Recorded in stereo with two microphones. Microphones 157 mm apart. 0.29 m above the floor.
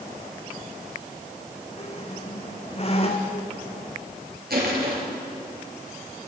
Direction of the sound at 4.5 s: 80° right.